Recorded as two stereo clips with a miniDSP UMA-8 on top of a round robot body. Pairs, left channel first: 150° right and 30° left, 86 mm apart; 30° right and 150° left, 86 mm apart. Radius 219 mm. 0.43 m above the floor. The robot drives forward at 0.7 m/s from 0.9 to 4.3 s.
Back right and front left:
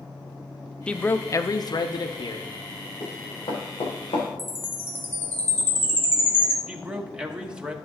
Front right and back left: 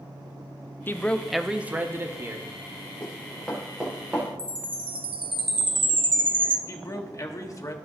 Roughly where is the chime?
Behind left.